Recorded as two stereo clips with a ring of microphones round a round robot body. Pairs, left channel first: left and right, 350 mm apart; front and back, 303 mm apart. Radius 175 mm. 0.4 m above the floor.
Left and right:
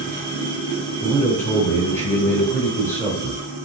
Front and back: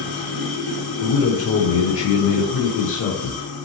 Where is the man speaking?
10° left, 1.3 m.